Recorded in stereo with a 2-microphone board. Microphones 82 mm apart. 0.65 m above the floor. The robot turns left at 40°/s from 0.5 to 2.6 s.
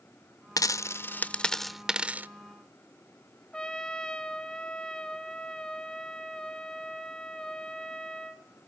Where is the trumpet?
10° left (ahead or behind), 1.1 m.